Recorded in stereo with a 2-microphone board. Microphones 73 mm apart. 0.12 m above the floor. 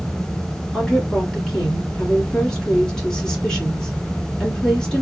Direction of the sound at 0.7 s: 10° left (ahead or behind).